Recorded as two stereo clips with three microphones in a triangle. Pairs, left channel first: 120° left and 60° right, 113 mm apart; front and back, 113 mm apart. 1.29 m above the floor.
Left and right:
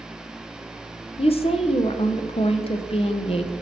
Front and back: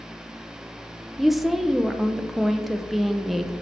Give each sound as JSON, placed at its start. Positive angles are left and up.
{"t": 1.2, "sound": "a woman speaking", "azimuth_deg": 90, "distance_m": 0.5}